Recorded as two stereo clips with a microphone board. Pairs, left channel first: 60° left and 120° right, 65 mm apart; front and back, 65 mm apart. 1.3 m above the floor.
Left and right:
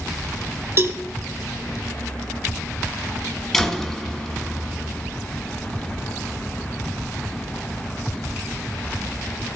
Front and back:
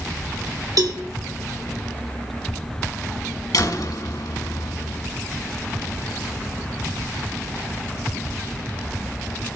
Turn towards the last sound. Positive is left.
turn(degrees=-25)